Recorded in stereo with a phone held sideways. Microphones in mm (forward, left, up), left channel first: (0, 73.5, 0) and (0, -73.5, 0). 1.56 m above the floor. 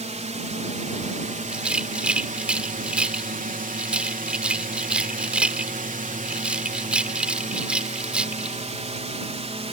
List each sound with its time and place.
0.0 s a drone: 50° right (ahead or behind); by 9.7 s 45° right (ahead or behind)
1.5 s a rattle: 5° right (ahead or behind)